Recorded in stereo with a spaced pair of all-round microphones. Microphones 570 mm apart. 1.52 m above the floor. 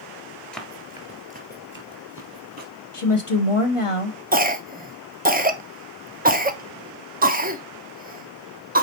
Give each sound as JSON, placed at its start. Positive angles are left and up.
{"t": 0.5, "sound": "running footsteps", "side_deg": 0, "distance_m": 1.5}
{"t": 2.9, "sound": "a woman speaking", "side_deg": 60, "distance_m": 1.3}
{"t": 4.3, "sound": "a cough", "side_deg": -15, "distance_m": 1.0}